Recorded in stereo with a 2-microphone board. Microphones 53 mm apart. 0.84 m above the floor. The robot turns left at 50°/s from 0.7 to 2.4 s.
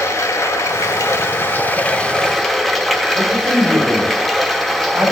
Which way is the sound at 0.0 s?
90° left.